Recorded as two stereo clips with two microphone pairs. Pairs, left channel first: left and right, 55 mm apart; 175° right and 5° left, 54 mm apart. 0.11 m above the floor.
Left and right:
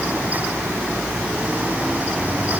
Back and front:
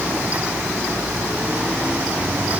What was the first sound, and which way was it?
Only background noise.